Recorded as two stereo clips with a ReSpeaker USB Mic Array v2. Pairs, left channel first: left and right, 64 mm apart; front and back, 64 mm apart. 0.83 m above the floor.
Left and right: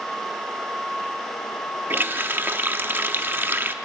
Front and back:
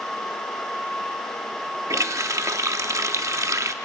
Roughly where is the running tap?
Behind right.